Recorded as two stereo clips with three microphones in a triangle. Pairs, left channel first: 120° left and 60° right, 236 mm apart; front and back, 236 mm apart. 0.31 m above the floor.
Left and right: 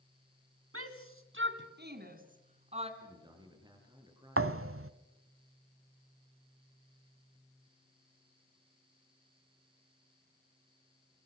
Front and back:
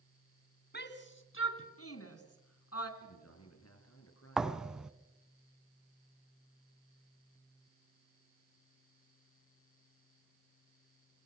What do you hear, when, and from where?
0.7 s a shout: 45° right, 2.5 m; by 2.9 s 5° left, 3 m
3.0 s a man speaking: 15° left, 6 m
4.4 s a thud: 95° right, 1.0 m